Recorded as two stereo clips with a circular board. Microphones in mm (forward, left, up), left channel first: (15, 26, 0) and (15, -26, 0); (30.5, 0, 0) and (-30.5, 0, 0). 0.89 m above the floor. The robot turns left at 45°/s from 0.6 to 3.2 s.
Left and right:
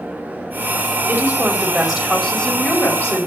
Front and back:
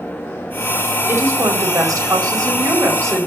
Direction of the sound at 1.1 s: 135° right.